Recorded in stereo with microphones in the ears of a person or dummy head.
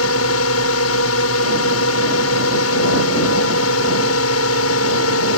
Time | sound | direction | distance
0.0 | a drone | 75° left (ahead or behind) | ?